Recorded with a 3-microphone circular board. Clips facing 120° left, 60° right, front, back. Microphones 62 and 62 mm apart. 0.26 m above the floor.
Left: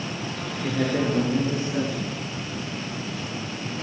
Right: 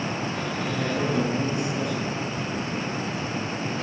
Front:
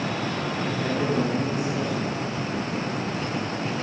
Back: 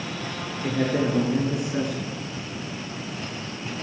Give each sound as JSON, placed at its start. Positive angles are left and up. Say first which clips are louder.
{"t": 0.6, "sound": "a man speaking", "louder": "left 4 dB, back 4 dB", "azimuth_deg": 170, "distance_m": 3.5}